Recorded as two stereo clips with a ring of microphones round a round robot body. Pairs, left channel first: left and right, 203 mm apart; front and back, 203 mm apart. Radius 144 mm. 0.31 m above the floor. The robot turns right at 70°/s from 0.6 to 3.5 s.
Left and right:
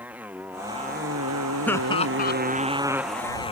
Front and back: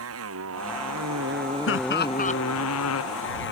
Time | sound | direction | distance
0.0 | a motorcycle | 175° right | ?
1.7 | laughter | 5° left | ?